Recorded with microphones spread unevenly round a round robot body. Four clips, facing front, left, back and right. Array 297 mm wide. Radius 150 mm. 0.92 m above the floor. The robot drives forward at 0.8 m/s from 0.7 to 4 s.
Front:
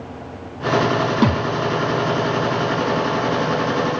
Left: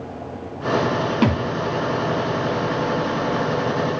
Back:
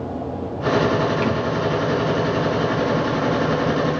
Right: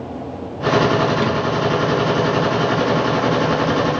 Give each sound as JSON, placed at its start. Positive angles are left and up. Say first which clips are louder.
{"t": 1.2, "sound": "a thud", "louder": "even, front 3 dB", "azimuth_deg": 25, "distance_m": 1.6}